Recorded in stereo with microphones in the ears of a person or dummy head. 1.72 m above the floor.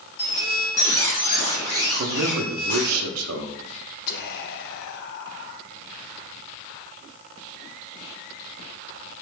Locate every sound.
0.2 s a squeak: 60° left (ahead or behind), 1.4 m
2.0 s a man speaking: 75° right (ahead or behind), 0.6 m
4.1 s whispering: 60° left (ahead or behind), 0.5 m